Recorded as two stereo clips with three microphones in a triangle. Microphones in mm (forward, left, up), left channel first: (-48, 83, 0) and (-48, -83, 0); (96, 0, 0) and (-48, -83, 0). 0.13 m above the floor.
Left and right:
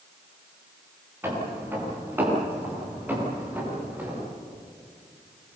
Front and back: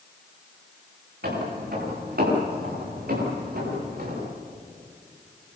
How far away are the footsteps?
About 10 m.